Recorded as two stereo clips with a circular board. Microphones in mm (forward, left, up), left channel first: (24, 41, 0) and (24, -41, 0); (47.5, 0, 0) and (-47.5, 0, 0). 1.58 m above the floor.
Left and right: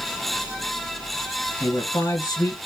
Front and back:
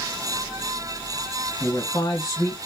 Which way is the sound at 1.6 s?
50° left.